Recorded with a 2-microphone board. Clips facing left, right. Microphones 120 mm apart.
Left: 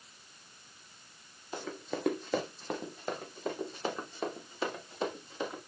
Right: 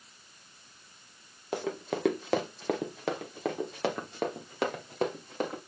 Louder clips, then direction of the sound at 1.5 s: Right 5 dB; 65° right (ahead or behind).